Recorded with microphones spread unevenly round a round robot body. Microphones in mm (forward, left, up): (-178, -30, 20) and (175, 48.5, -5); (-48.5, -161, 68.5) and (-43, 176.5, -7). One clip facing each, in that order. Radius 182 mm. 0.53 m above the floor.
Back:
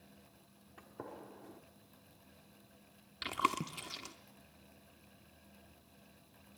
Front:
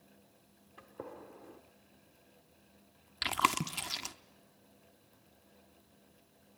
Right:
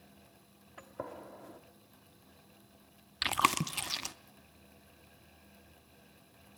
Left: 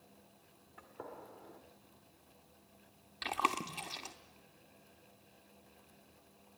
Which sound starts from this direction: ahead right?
Chewing, at 3.2 s.